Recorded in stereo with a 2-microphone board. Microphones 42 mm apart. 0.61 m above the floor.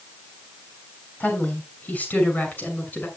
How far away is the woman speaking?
About 6 m.